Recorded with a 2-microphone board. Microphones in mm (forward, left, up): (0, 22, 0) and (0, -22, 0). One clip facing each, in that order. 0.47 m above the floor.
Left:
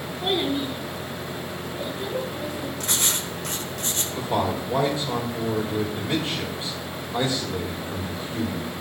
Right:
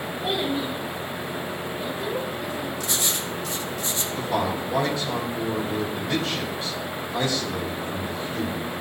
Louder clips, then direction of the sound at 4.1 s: Left 1 dB; 30° left (ahead or behind).